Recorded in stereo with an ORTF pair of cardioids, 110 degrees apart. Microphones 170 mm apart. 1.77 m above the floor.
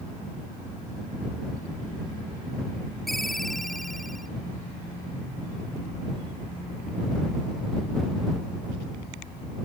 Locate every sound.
3.1 s a ringtone: straight ahead